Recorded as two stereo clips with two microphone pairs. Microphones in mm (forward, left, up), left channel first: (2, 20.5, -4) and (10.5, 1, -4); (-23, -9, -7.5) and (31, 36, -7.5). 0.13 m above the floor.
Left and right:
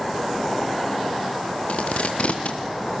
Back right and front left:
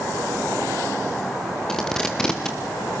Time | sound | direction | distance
1.7 | tape being pulled | 140° left | 3 m